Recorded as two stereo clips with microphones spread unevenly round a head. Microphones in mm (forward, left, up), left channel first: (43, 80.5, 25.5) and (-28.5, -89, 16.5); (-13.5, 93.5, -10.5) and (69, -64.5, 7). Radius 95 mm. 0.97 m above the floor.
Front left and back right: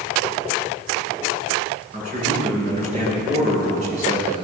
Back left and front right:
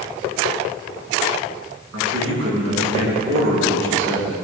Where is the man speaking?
60° right, 10 m.